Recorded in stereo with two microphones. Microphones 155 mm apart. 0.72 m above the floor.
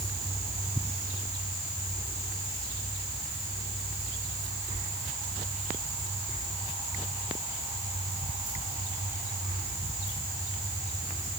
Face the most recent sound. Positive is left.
No sound to turn to.